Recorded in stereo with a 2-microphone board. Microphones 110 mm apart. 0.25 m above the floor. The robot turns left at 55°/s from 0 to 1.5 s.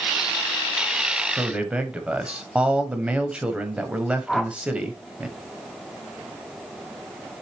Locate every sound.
1.4 s a man speaking: 10° right (ahead or behind), 1.0 m
4.3 s a whoosh: centre (ahead or behind), 0.7 m